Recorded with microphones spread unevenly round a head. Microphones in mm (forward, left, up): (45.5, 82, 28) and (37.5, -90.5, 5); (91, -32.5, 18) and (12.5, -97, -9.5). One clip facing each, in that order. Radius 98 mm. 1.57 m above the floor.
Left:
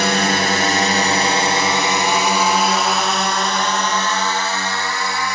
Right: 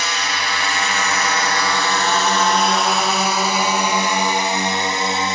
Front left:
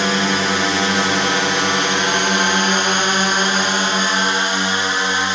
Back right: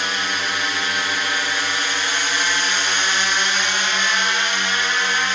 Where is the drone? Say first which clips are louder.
Left 8 dB, front left 7 dB; 55° left; by 5.3 s 30° right.